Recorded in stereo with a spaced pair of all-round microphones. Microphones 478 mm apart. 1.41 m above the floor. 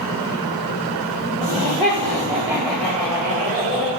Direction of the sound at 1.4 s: 20° right (ahead or behind).